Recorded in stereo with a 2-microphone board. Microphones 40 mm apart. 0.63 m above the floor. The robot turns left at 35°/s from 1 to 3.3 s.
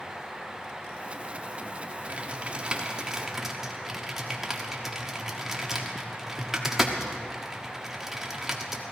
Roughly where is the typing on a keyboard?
Right.